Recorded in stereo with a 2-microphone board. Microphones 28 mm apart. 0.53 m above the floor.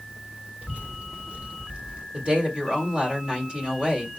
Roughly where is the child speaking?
Right.